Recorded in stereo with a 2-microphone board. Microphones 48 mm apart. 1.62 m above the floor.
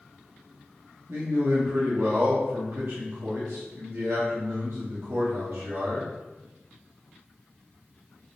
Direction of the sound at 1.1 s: 65° right (ahead or behind).